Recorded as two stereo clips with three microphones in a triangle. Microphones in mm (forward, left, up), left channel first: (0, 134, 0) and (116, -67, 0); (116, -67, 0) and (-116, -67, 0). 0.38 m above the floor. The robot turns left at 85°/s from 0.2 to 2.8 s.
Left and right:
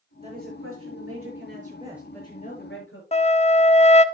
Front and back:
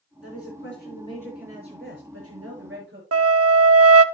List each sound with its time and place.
0.2 s a woman speaking: 5° left, 7 m; by 3.0 s 145° left, 7 m
3.1 s a flute: straight behind, 0.6 m